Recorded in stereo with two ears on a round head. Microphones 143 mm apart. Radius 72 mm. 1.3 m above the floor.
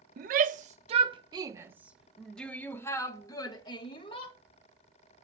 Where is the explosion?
No explosion in this recording.